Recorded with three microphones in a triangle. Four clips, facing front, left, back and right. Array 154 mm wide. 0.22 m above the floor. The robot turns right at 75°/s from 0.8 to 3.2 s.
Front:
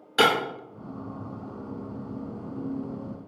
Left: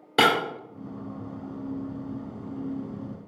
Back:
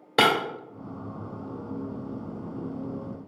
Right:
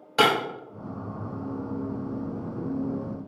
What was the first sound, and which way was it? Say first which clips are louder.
Breaking glass: even, even; 150° left.